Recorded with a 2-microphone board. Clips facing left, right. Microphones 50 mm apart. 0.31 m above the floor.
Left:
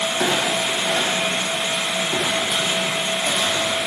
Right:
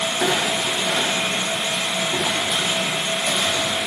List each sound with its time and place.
0.2 s a clunk: 60° left (ahead or behind), 9.5 m